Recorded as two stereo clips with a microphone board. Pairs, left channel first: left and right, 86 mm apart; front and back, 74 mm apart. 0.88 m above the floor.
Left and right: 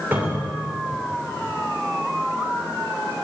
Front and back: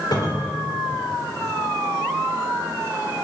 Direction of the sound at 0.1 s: 25° right.